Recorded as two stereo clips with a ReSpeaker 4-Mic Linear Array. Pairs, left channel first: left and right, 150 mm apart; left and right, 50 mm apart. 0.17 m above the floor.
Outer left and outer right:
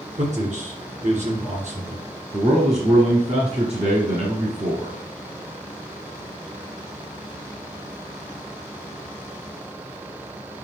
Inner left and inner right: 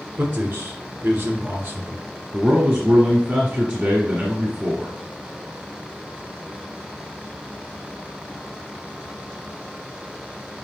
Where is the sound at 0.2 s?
55° right (ahead or behind), 2.5 m.